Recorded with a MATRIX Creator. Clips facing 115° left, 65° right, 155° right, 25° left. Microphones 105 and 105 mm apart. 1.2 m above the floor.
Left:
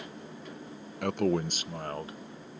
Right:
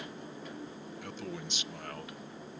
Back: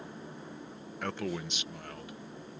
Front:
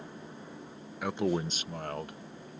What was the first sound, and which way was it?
A man speaking, 105° left.